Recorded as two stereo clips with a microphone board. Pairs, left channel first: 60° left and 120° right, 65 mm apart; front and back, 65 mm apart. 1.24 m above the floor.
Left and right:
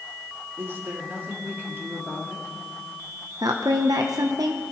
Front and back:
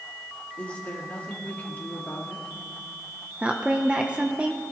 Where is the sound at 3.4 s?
110° right, 0.7 m.